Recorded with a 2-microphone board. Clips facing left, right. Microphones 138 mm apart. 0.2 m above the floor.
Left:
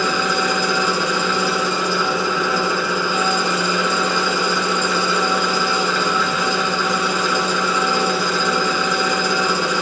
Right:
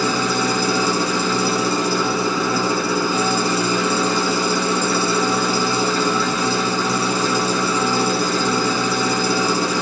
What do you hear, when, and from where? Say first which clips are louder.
0.0 s an engine running: even; 35° right (ahead or behind), 0.9 m